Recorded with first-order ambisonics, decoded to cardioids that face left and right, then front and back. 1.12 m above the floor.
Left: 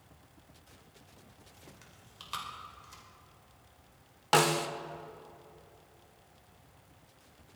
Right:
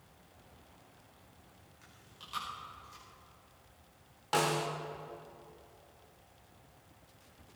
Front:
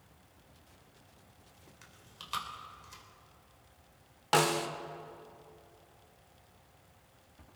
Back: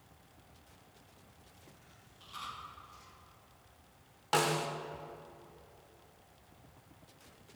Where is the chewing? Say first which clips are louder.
Right 1 dB, front 6 dB; 30° left, 2.5 m.